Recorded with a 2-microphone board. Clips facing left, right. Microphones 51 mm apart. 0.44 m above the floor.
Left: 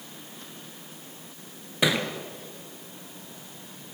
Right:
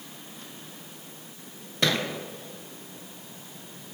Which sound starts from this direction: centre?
A thud, at 1.8 s.